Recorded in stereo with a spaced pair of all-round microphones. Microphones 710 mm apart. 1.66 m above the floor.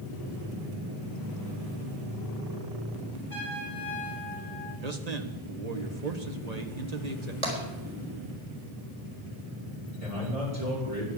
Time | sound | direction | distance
3.3 | a trumpet | 30° right (ahead or behind) | 6.5 m
4.8 | a man speaking | 70° right (ahead or behind) | 1.6 m
7.4 | tapping | 55° right (ahead or behind) | 4 m
10.0 | a man speaking | 55° right (ahead or behind) | 4 m